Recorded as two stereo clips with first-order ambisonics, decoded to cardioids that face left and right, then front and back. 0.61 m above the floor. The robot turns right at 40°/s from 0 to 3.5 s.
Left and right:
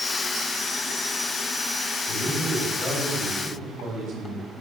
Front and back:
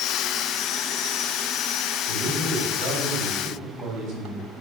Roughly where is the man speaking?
Behind left.